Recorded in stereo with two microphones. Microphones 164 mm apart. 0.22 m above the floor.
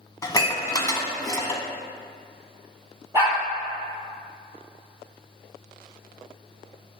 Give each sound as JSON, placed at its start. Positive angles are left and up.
{"t": 0.2, "sound": "dishes clattering", "side_deg": 20, "distance_m": 0.9}
{"t": 3.1, "sound": "a dog barking", "side_deg": -15, "distance_m": 1.9}